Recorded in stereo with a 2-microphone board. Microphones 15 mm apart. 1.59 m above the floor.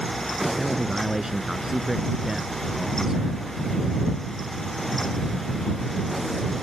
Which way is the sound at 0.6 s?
40° right (ahead or behind).